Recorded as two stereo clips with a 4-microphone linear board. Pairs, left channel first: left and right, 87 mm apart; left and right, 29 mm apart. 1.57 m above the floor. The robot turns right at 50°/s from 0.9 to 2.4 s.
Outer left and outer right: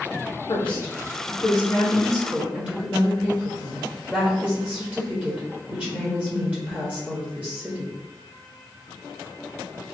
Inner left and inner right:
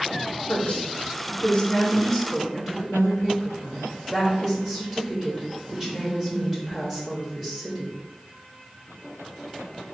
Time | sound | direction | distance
0.5 | a woman speaking | 120° left | 0.9 m